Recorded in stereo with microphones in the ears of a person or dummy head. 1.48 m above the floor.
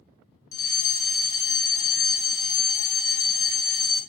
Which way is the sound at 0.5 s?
20° left (ahead or behind).